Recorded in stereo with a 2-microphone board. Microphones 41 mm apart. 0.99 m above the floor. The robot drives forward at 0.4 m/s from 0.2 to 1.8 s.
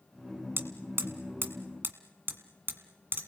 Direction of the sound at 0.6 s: 70° right (ahead or behind).